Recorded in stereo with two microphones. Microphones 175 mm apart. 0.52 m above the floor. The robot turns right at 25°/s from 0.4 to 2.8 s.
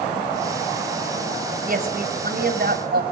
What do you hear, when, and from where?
1.6 s a woman speaking: 50° right (ahead or behind), 2.5 m; by 3.0 s 70° right (ahead or behind), 2.5 m